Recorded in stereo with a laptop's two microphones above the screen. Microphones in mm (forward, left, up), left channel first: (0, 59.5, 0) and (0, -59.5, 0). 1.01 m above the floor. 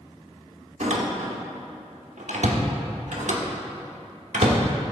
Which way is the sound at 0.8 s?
80° right.